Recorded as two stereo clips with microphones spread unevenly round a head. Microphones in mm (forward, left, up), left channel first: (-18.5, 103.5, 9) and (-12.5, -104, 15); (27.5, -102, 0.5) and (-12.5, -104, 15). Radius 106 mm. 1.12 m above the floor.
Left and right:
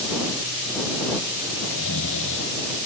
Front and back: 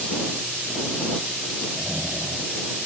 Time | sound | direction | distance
1.6 | snoring | 120° left | ?